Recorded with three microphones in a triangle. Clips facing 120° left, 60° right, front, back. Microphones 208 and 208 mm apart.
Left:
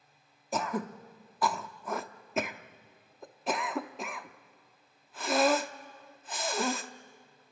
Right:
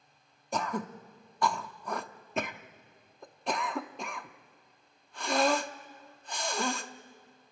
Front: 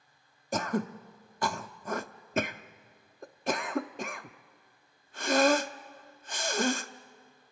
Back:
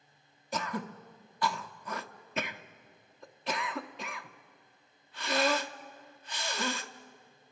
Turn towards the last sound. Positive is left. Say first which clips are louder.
# left 1 dB, front 6 dB
turn(degrees=35)